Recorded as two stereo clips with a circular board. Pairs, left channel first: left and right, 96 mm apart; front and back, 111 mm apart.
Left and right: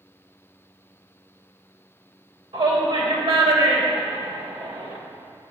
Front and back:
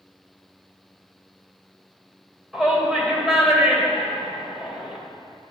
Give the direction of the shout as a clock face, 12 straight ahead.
3 o'clock.